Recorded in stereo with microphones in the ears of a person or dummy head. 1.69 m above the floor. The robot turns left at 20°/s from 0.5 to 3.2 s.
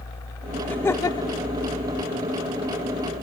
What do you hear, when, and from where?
0.6 s laughter: 5° left (ahead or behind); by 1.4 s 25° left (ahead or behind)